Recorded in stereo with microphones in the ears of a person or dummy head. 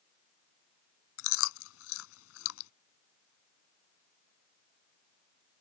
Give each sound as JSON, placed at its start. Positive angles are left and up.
{"t": 1.2, "sound": "chewing", "side_deg": 80}